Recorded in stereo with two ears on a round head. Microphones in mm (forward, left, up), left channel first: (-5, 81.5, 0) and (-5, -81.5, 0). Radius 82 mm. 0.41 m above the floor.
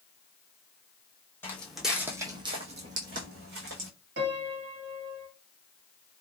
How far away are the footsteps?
About 1.0 m.